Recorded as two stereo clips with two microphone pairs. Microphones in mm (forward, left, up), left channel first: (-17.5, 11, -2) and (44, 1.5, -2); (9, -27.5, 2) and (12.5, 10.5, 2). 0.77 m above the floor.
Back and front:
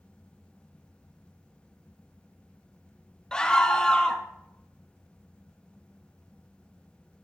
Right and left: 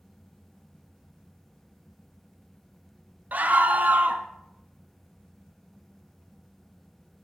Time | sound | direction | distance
3.3 | a scream | 95° left | 0.6 m